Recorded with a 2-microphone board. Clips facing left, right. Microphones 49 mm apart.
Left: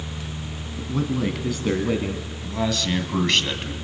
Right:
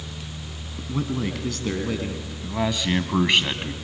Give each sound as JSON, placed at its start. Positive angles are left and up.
{"t": 0.8, "sound": "a man speaking", "side_deg": -5, "distance_m": 1.9}
{"t": 2.4, "sound": "a man speaking", "side_deg": -15, "distance_m": 1.8}